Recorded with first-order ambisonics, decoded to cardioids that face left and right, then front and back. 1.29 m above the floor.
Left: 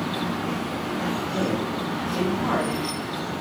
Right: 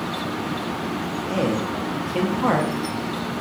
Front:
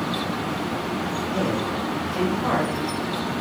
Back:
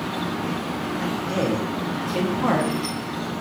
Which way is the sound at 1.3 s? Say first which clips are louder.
Right 2 dB, back 1 dB; 120° right.